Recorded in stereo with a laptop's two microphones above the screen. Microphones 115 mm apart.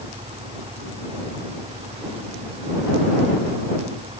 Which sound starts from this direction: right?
An engine running, at 0.0 s.